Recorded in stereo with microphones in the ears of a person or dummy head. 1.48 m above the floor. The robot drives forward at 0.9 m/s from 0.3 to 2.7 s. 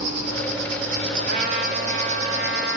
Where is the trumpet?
55° right (ahead or behind), 3 m; by 2.8 s 65° right (ahead or behind), 2.5 m.